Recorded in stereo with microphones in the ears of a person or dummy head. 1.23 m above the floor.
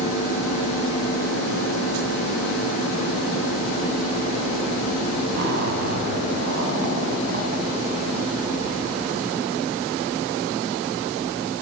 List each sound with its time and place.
5.3 s a zipper: 60° right (ahead or behind), 5.5 m